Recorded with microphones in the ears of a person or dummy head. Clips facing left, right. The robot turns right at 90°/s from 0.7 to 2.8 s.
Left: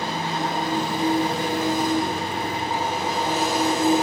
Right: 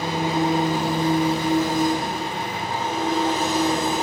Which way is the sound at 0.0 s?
20° right.